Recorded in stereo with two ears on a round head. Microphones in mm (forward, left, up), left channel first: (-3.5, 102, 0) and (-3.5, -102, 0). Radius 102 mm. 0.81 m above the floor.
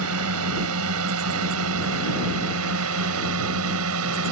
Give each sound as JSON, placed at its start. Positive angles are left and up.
{"t": 0.0, "sound": "a drone", "side_deg": -70}